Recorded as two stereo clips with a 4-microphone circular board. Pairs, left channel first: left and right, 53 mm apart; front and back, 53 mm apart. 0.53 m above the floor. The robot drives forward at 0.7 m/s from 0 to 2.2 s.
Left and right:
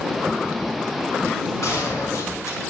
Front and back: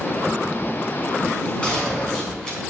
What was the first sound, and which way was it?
A gunshot, 70° left.